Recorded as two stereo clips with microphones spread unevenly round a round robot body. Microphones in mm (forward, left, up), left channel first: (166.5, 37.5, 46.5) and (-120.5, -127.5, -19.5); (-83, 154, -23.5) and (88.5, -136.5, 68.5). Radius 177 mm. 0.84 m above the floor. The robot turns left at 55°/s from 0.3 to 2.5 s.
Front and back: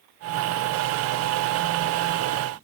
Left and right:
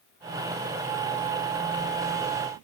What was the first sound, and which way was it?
Only background noise.